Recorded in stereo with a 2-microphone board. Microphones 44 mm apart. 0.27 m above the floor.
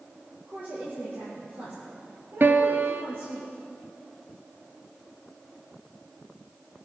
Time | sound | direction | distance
0.5 | a woman speaking | 45° right (ahead or behind) | 6 m
2.4 | a piano | 50° right (ahead or behind) | 1.0 m